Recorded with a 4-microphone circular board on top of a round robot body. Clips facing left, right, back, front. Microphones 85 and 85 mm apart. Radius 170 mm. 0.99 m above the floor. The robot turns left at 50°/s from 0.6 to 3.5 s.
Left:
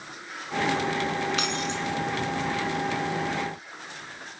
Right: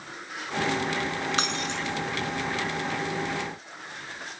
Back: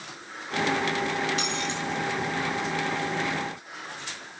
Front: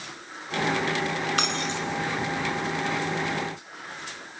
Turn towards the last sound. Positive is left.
turn(degrees=-140)